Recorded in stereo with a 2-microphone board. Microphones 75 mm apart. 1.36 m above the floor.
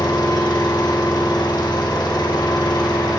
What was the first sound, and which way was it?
An engine running, 60° left (ahead or behind).